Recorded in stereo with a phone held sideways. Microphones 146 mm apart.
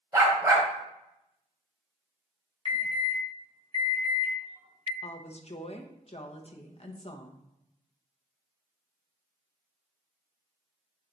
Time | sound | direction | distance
0.1 | a dog barking | 25° right (ahead or behind) | 1.9 m
2.6 | an alarm | 40° right (ahead or behind) | 1.6 m
5.0 | a woman speaking | 45° left (ahead or behind) | 0.8 m